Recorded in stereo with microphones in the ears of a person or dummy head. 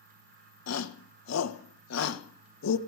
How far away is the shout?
About 1.8 m.